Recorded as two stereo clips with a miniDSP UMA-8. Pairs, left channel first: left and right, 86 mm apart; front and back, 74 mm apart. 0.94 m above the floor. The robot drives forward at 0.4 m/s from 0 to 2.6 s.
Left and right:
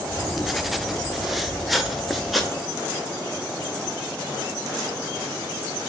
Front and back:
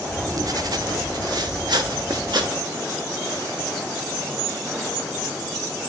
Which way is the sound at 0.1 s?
175° right.